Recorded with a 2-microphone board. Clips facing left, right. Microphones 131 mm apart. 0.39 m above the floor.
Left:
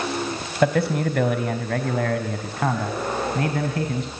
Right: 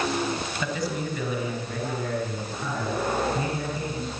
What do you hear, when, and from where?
0.6 s a man speaking: 60° left (ahead or behind), 2.5 m; by 4.1 s 75° left (ahead or behind), 4.5 m